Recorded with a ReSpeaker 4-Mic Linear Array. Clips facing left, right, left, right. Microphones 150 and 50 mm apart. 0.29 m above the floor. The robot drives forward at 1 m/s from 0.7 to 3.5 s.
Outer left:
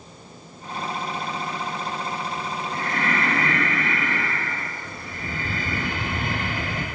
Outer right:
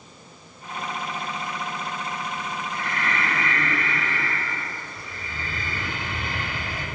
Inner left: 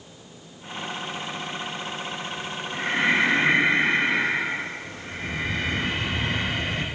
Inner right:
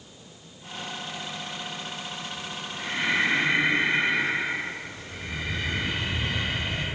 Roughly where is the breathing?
Left.